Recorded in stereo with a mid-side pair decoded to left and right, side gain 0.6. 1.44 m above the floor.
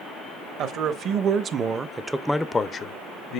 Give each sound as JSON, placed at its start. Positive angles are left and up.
{"t": 0.6, "sound": "a man speaking", "azimuth_deg": -60, "distance_m": 1.1}